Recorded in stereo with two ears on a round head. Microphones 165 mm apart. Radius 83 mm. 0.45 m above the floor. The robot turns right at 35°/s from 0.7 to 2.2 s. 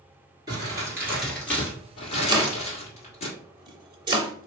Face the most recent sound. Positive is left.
turn(degrees=-25)  # may be behind; listen again after turning